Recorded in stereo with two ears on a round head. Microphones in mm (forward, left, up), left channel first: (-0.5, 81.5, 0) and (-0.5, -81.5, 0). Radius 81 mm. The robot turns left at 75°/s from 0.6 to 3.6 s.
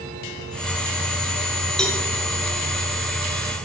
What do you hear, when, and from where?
1.8 s a cowbell: 5° left (ahead or behind), 3 m; by 2.0 s 20° left (ahead or behind), 3 m